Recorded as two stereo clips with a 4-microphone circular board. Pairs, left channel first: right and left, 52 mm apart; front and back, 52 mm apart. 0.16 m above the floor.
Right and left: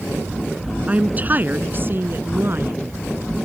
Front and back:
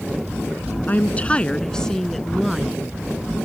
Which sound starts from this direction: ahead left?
A woman speaking, at 0.9 s.